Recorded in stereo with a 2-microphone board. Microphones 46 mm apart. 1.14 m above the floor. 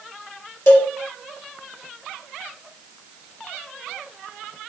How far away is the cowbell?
About 0.9 m.